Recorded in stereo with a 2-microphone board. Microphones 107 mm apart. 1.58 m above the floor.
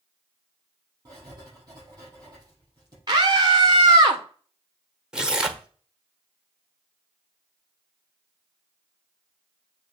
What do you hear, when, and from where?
1.1 s writing: 35° right (ahead or behind), 5 m
3.1 s a scream: 40° right (ahead or behind), 1.4 m
5.1 s tearing paper: 5° right (ahead or behind), 0.9 m